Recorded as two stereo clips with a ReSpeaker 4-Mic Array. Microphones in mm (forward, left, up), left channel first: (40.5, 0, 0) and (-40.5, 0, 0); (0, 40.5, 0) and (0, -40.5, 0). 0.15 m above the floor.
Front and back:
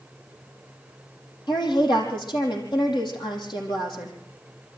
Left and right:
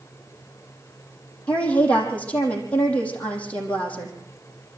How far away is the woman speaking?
About 5 m.